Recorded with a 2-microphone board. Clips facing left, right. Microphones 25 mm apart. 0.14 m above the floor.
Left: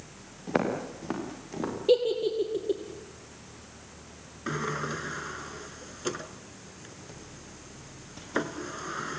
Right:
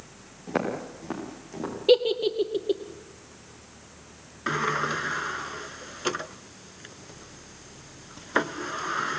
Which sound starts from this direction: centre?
Footsteps, at 0.5 s.